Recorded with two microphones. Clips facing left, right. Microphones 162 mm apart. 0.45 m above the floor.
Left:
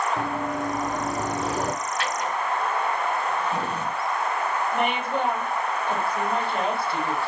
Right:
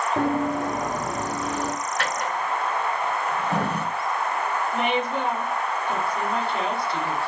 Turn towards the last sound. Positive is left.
turn(degrees=60)  # may be behind; listen again after turning